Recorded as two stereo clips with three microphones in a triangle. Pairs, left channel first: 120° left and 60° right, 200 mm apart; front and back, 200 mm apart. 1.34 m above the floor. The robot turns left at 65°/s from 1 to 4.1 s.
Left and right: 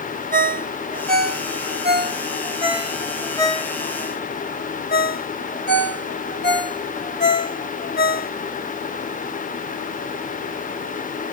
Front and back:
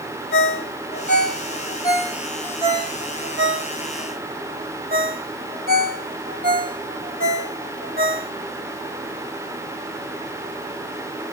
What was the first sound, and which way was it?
A ringtone, 15° right.